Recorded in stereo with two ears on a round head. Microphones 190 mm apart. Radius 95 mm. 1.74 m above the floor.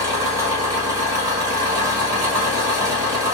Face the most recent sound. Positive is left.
turn(degrees=-15)  # may be behind; listen again after turning